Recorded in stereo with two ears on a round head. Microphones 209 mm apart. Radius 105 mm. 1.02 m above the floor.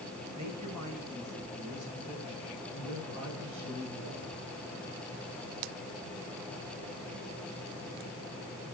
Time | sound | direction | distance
0.3 | a woman speaking | 80° right | 6.5 m
2.7 | a man speaking | 65° right (ahead or behind) | 7 m